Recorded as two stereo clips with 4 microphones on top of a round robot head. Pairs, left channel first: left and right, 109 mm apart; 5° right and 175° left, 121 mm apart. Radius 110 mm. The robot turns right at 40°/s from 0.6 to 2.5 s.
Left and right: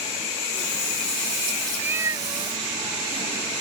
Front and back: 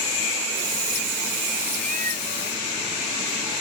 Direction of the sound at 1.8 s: 165° right.